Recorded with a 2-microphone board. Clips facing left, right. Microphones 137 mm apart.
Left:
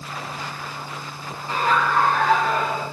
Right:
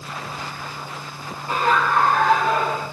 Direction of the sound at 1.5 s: 55° right (ahead or behind).